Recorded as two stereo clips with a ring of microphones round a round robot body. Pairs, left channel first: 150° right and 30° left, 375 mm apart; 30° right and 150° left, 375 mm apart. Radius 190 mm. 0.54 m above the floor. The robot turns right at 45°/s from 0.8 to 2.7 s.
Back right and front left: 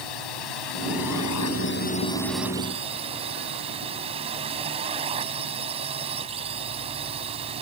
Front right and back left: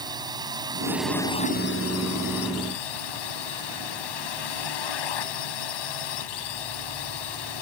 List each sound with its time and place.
0.0 s a drone: 130° right; by 7.6 s 45° right